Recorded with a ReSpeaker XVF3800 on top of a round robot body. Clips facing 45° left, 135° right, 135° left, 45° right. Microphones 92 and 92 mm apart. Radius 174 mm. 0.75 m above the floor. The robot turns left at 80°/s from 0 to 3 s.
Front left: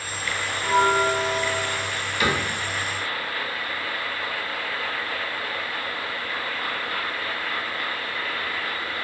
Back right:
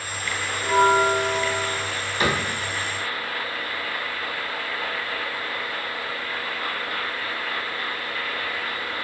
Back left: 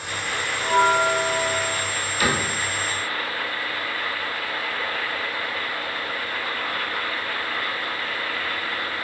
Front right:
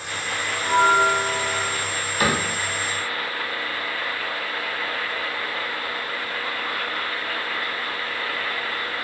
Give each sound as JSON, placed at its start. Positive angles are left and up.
{"t": 0.6, "sound": "a bell", "azimuth_deg": -55, "distance_m": 1.3}
{"t": 2.2, "sound": "a cupboard door", "azimuth_deg": -85, "distance_m": 0.9}